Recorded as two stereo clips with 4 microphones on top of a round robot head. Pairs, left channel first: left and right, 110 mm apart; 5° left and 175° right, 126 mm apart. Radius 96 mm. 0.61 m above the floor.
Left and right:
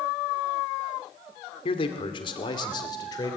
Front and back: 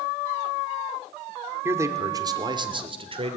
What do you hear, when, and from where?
1.6 s a man speaking: 115° left, 2.5 m; by 3.4 s 150° left, 3 m